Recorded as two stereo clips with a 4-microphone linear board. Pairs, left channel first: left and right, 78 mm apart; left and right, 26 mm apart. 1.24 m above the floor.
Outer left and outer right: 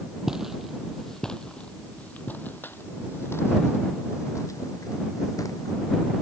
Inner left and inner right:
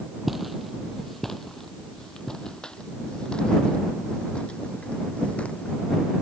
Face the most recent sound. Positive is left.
turn(degrees=45)  # may be behind; listen again after turning